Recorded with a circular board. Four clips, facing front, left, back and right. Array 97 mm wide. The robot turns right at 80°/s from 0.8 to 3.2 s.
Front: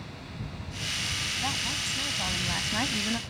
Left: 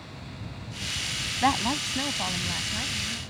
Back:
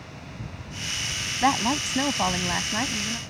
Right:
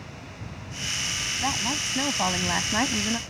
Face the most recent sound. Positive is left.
turn(degrees=-70)